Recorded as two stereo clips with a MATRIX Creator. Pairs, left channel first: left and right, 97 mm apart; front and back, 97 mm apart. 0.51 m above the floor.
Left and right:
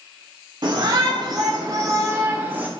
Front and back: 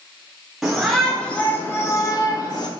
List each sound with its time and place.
0.6 s a shout: 95° right, 1.2 m; by 2.7 s 20° right, 1.3 m